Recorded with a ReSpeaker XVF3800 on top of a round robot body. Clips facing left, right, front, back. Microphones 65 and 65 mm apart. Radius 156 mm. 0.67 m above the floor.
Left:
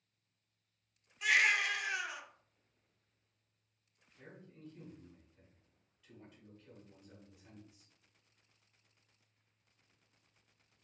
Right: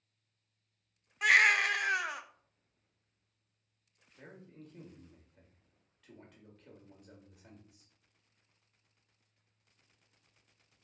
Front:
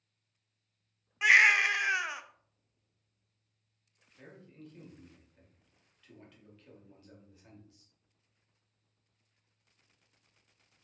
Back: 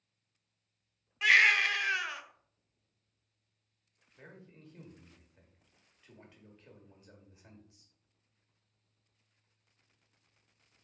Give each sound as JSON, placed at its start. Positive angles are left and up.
{"t": 1.2, "sound": "a baby crying", "azimuth_deg": -70, "distance_m": 0.6}
{"t": 4.2, "sound": "a man speaking", "azimuth_deg": -110, "distance_m": 1.7}